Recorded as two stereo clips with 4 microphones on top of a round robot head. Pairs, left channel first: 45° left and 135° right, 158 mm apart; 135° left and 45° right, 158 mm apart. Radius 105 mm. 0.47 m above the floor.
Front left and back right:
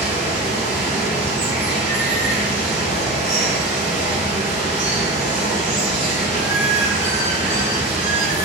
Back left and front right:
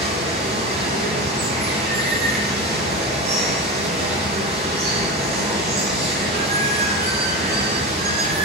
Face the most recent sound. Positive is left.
turn(degrees=-65)